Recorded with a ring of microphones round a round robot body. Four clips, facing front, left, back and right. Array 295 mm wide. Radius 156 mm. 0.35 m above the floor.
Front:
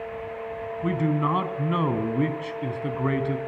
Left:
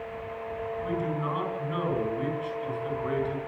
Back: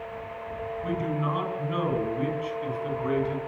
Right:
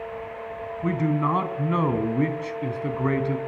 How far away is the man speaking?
About 3.5 m.